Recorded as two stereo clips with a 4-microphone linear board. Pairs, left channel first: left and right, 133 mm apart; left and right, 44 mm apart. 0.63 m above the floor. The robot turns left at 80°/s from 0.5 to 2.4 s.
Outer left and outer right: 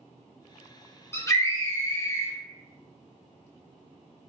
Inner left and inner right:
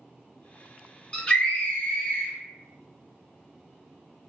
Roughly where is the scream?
Centre.